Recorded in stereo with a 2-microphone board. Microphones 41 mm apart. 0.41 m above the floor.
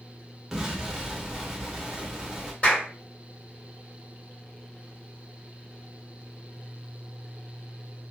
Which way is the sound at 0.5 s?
10° right (ahead or behind).